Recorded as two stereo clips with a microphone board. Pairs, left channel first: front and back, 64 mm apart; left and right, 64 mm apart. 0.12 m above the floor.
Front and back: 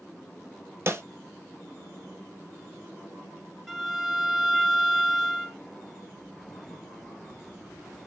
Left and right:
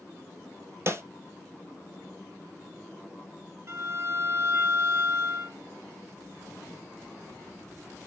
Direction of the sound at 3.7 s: 90° right.